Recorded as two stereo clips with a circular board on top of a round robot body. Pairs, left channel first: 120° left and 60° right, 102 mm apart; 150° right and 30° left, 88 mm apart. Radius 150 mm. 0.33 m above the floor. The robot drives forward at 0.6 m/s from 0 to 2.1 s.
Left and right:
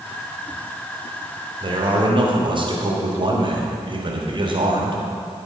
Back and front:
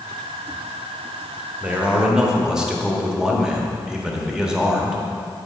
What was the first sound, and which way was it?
A man speaking, 40° right.